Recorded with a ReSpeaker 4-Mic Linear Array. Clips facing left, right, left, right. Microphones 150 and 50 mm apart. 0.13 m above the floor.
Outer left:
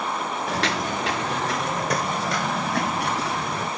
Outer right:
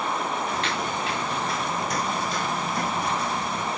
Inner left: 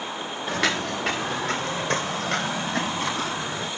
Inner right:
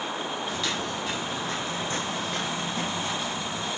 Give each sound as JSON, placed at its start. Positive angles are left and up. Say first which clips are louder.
{"t": 0.5, "sound": "footsteps", "louder": "outer left 2 dB, inner left 5 dB", "side_deg": 85, "distance_m": 1.1}